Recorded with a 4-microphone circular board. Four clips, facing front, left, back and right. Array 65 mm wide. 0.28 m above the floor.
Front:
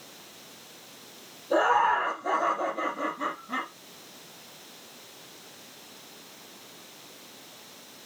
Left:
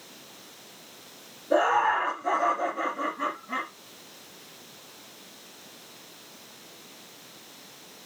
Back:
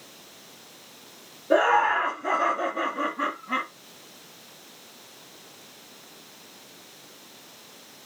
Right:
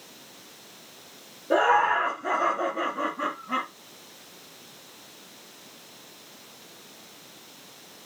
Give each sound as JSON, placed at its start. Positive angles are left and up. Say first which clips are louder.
{"t": 1.5, "sound": "laughter", "louder": "right 2 dB, back 2 dB", "azimuth_deg": -145, "distance_m": 3.5}